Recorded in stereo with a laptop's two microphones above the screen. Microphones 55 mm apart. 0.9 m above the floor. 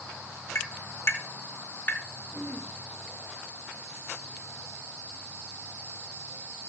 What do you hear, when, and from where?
0.6 s tapping: 50° left (ahead or behind), 2 m
2.3 s throat clearing: 15° right (ahead or behind), 3.5 m